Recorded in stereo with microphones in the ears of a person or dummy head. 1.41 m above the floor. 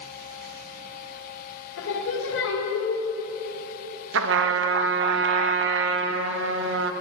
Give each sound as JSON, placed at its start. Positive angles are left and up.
{"t": 1.8, "sound": "singing", "side_deg": 70, "distance_m": 2.0}
{"t": 4.1, "sound": "a trumpet", "side_deg": -65, "distance_m": 0.8}